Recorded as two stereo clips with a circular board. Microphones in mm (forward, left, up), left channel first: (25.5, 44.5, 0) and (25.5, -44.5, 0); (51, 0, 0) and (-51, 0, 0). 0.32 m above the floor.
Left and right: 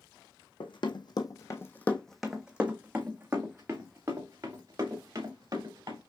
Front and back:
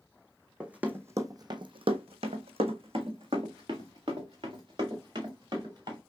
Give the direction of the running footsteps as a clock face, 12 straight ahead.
9 o'clock.